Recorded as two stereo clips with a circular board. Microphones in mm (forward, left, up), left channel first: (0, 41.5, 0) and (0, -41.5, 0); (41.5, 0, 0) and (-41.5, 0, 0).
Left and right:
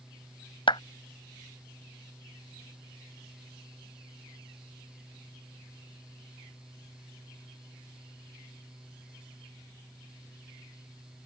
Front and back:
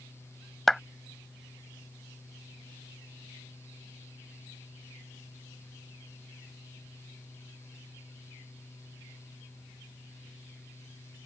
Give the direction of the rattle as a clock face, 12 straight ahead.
No rattle in this recording.